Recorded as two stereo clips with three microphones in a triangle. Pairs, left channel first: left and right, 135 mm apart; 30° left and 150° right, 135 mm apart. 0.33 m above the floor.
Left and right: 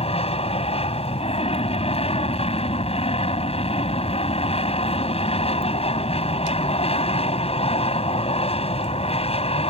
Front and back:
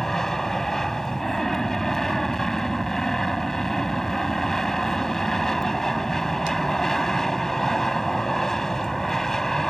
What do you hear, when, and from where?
0.0 s an aircraft: 115° left